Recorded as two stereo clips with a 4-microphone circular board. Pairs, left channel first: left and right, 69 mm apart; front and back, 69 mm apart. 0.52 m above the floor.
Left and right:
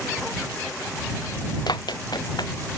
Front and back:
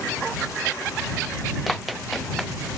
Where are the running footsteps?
90° left.